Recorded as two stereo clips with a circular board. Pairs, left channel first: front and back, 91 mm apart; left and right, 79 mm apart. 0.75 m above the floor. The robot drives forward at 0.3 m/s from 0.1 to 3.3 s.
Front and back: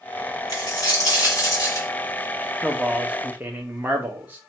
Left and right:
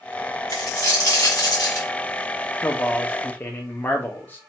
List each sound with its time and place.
0.5 s a dropped coin: 45° left, 2.5 m; by 1.9 s 55° left, 2 m
2.6 s a man speaking: 85° left, 0.5 m; by 4.4 s 130° left, 0.5 m